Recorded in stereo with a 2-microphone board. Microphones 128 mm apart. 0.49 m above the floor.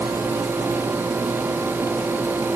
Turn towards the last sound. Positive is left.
No sound to turn to.